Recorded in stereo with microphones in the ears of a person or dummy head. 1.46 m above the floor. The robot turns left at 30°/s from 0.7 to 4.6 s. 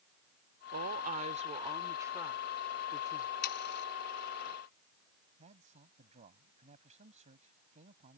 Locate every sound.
0.7 s a woman speaking: 120° right; by 3.3 s 160° left
3.4 s sawing: 55° left (ahead or behind); by 3.9 s 65° left (ahead or behind)
5.4 s a man speaking: 40° right (ahead or behind)